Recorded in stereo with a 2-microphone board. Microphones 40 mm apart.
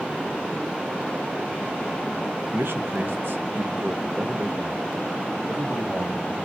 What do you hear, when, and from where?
2.5 s a man speaking: 70° right (ahead or behind), 1.2 m; by 6.5 s 45° right (ahead or behind), 3 m